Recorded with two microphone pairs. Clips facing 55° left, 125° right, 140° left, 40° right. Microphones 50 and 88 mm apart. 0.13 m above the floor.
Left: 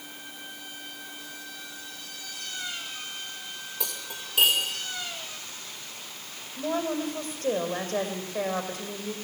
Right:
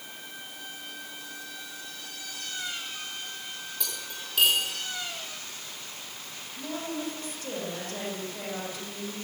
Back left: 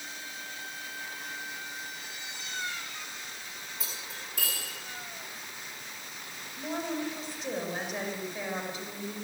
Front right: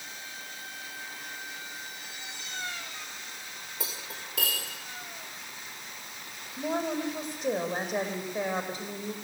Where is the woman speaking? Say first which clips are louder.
Left 6 dB, front right 4 dB; 10° left, 5.5 m.